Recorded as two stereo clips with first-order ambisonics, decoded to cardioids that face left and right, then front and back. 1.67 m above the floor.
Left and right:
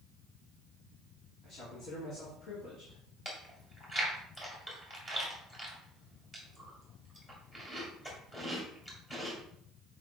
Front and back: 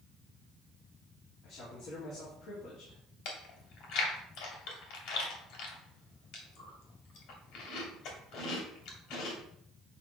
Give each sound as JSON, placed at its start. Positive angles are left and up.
{"t": 1.4, "sound": "a man speaking", "azimuth_deg": 40, "distance_m": 2.5}
{"t": 3.2, "sound": "chewing", "azimuth_deg": 10, "distance_m": 2.5}